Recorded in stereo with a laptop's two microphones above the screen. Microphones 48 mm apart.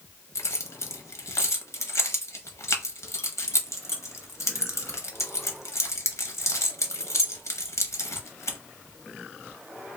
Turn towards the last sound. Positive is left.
turn(degrees=75)  # may be behind; listen again after turning